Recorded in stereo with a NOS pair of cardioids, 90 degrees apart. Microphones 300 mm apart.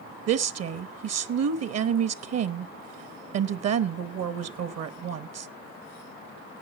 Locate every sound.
0.3 s a woman speaking: 55° right, 1.1 m